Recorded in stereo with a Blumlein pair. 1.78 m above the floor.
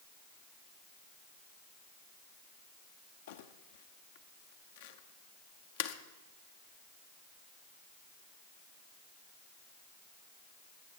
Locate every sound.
3.3 s crumpling: 55° left, 0.9 m